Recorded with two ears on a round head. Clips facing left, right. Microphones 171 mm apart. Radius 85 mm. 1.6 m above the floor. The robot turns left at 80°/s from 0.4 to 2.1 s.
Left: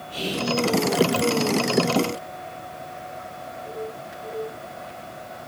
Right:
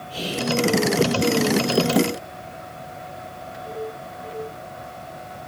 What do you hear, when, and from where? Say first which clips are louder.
0.1 s whispering: right 1 dB; 30° right (ahead or behind), 6 m; by 0.5 s 40° right (ahead or behind), 6 m